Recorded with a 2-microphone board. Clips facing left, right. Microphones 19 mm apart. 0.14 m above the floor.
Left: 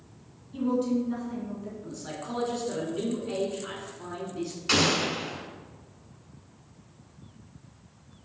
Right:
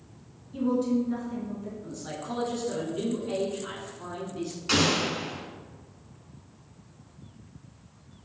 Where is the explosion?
5° left (ahead or behind), 0.8 m.